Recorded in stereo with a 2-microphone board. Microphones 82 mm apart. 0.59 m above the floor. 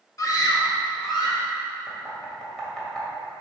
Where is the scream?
40° left (ahead or behind), 1.0 m; by 1.5 s 60° left (ahead or behind), 2 m.